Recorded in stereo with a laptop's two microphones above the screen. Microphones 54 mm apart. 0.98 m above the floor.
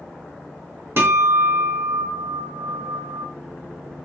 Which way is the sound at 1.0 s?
45° right (ahead or behind).